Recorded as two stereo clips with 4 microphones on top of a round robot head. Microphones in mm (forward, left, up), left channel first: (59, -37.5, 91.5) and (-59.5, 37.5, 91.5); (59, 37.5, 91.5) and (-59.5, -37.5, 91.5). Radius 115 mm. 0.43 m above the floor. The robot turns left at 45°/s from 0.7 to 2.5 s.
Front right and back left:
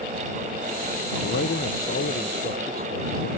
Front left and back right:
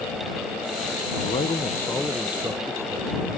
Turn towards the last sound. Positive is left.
turn(degrees=-75)